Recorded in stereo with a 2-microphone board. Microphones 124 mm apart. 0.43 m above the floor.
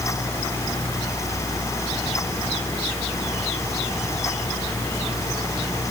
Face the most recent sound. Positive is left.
No sound to turn to.